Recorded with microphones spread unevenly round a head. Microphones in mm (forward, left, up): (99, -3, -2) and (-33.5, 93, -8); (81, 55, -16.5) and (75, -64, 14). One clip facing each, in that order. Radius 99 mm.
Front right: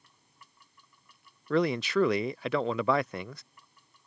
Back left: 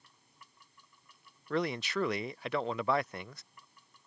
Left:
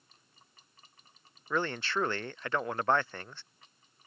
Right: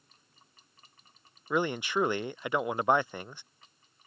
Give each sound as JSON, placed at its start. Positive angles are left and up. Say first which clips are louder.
{"t": 1.5, "sound": "a man speaking", "louder": "front right 7 dB, right 3 dB", "azimuth_deg": -15}